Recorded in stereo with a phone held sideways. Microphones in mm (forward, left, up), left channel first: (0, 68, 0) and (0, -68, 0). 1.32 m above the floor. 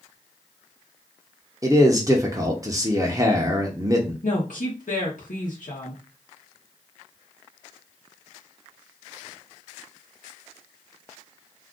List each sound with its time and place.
1.6 s a man speaking: 25° right (ahead or behind), 0.7 m
4.2 s a woman speaking: 75° left (ahead or behind), 0.9 m